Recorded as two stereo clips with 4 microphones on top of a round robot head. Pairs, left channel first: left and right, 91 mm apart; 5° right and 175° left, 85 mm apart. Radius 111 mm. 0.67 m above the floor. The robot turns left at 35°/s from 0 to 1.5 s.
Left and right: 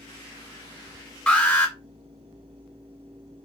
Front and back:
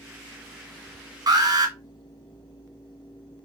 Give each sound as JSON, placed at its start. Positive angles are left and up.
{"t": 1.3, "sound": "an alarm", "azimuth_deg": 170, "distance_m": 2.0}